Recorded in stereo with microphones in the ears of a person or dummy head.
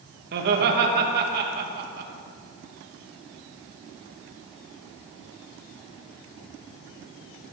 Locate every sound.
0.3 s laughter: 50° right (ahead or behind), 2.5 m